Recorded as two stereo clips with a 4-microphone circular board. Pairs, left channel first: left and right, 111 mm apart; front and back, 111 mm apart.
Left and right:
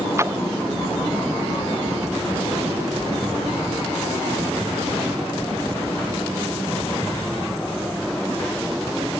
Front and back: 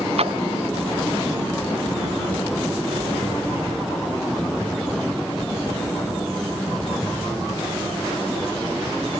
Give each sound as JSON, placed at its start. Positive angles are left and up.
{"t": 0.2, "sound": "a splash", "azimuth_deg": -155}